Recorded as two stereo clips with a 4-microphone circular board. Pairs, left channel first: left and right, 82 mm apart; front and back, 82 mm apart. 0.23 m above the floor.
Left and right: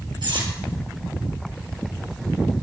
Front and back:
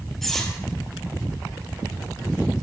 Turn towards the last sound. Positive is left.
turn(degrees=-85)